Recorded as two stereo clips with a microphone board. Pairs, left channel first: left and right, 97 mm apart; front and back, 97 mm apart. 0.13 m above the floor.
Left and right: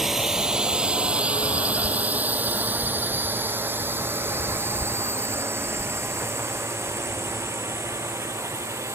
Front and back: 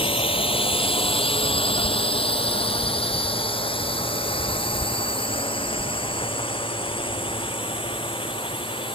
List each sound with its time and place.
0.0 s a drone: 5° right; by 8.9 s 30° right